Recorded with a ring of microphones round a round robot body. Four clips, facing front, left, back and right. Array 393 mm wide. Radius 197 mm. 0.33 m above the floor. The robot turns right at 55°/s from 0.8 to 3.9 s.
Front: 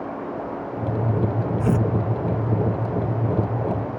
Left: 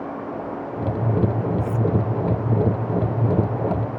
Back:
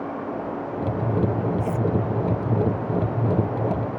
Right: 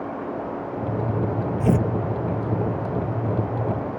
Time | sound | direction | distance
1.6 | tearing paper | 70° right | ?